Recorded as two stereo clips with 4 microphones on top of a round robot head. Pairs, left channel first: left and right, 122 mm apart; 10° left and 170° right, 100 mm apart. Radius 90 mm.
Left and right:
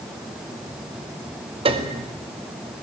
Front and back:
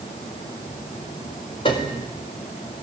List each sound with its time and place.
1.6 s a piano: 45° right, 2 m